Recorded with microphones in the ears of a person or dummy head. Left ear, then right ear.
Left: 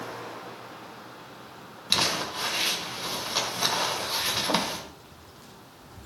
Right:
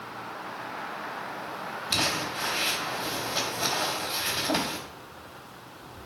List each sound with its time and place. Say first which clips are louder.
1.9 s crumpling: left 2 dB; 45° left (ahead or behind), 2.0 m